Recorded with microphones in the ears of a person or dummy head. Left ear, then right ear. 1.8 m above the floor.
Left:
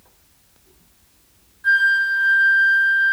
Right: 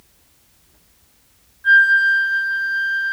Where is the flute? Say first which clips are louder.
Right 4 dB; 15° left (ahead or behind), 2.5 m.